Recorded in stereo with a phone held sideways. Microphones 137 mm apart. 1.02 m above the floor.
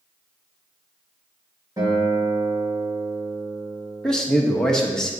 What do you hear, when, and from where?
1.8 s a guitar: 25° right (ahead or behind), 3 m
4.0 s a man speaking: 5° left (ahead or behind), 1.1 m